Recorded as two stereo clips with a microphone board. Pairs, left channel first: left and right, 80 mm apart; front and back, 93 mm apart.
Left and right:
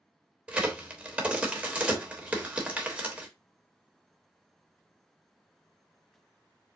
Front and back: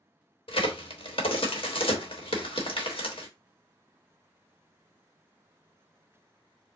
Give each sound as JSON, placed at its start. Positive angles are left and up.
{"t": 0.5, "sound": "a crack", "azimuth_deg": -15, "distance_m": 1.1}